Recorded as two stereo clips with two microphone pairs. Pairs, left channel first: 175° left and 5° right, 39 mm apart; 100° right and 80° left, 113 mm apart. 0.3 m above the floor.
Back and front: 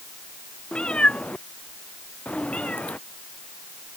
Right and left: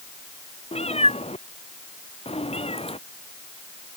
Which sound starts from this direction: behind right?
A cat meowing, at 0.7 s.